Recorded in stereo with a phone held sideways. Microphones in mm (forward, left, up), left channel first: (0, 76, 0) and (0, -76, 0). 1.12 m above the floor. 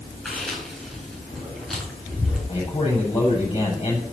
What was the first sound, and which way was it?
Chewing, centre (ahead or behind).